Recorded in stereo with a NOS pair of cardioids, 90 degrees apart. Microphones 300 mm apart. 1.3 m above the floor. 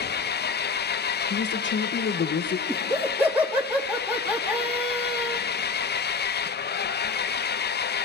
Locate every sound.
0.0 s an engine running: 35° left, 0.8 m
1.3 s a man speaking: 40° left, 1.6 m
2.7 s laughter: 5° right, 3.5 m